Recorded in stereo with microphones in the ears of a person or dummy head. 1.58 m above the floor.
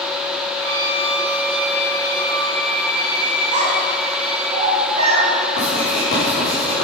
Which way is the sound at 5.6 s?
35° left (ahead or behind).